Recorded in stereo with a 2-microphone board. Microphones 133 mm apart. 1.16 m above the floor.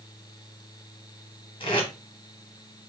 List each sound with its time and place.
1.6 s tape being pulled: 40° left (ahead or behind), 1.3 m